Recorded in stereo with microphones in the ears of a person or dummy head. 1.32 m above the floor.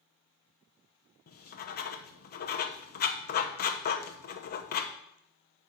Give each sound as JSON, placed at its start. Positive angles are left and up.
{"t": 1.3, "sound": "writing", "side_deg": 50, "distance_m": 0.8}